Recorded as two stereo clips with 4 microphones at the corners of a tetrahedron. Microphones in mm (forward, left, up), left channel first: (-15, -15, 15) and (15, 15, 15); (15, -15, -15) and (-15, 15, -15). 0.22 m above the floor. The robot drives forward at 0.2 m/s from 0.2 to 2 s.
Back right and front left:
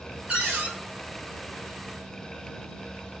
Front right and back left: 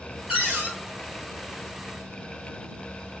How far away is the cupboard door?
About 1.9 m.